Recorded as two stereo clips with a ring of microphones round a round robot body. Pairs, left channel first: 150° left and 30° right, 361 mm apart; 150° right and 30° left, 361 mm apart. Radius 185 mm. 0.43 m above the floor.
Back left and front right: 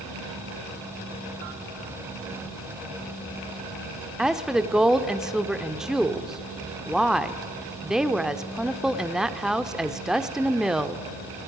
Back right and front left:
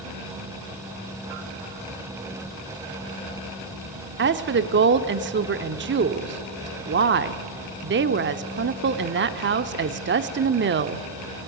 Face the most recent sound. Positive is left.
turn(degrees=60)